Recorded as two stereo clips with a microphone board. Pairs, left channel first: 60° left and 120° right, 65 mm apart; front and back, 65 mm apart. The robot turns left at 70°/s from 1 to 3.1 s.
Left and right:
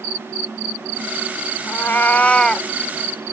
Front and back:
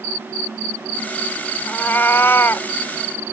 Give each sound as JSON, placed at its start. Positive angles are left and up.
{"t": 1.7, "sound": "a cat meowing", "azimuth_deg": 50}